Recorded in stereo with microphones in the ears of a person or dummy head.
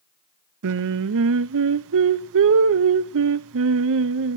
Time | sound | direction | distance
0.6 | singing | 70° right (ahead or behind) | 0.9 m